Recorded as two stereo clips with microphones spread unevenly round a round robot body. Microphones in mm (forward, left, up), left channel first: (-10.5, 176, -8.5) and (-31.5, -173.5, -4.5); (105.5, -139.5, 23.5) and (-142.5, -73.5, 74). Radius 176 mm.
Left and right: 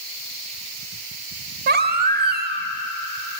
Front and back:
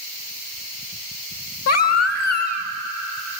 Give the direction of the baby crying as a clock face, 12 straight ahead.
1 o'clock.